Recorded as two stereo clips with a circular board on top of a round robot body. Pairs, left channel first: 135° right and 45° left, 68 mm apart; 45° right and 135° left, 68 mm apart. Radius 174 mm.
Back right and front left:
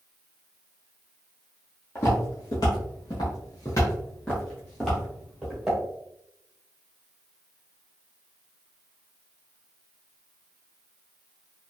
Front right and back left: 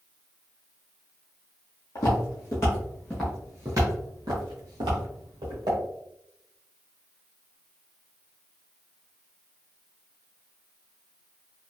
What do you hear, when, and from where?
1.9 s footsteps: 85° right, 0.9 m; by 5.8 s 130° left, 1.3 m